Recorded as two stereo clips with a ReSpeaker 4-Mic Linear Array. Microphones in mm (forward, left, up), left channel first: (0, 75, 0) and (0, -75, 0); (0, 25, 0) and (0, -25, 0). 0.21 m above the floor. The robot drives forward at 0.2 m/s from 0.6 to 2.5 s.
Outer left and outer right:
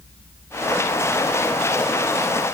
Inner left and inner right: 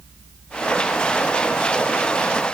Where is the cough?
I don't hear a cough.